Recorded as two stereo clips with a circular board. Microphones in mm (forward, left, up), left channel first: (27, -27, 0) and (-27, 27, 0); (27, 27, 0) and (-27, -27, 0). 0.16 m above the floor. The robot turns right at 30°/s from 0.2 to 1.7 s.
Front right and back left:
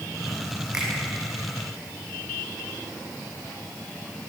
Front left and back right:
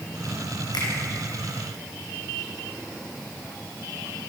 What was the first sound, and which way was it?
A finger snap, 55° left.